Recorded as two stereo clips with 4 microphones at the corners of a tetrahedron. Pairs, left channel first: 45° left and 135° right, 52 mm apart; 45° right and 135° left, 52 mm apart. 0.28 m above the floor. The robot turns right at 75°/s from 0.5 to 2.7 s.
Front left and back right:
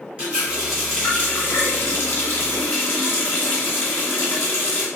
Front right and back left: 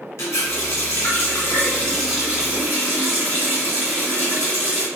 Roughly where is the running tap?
Right.